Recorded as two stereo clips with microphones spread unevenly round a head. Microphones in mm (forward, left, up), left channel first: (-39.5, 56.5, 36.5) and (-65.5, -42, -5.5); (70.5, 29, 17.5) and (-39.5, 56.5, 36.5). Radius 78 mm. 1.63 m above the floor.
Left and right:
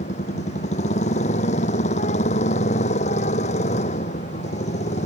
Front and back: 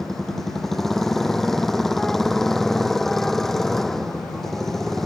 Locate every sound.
0.0 s a motorcycle: 75° left